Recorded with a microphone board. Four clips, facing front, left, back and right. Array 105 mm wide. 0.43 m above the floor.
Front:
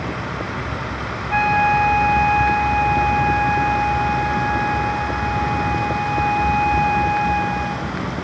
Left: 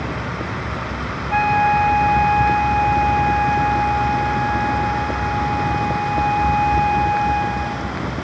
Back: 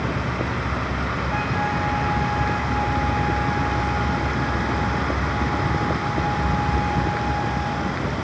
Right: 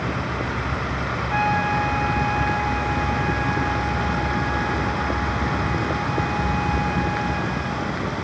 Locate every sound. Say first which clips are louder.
1.3 s a flute: left 6 dB, front 11 dB; 10° right, 1.7 m